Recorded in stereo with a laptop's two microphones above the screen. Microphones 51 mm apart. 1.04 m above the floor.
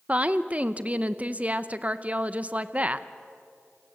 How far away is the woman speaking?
About 0.6 m.